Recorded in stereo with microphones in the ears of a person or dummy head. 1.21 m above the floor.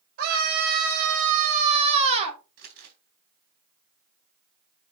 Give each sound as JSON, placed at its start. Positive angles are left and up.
{"t": 0.2, "sound": "a scream", "side_deg": -65, "distance_m": 4.5}
{"t": 2.6, "sound": "crumpling", "side_deg": -65, "distance_m": 4.0}